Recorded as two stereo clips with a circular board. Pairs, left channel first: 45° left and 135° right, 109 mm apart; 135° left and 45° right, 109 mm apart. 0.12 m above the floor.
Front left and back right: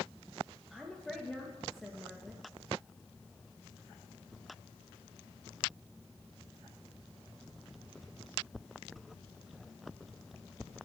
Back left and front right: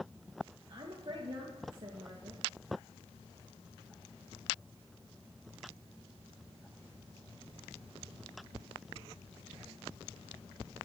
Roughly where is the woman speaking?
Ahead right.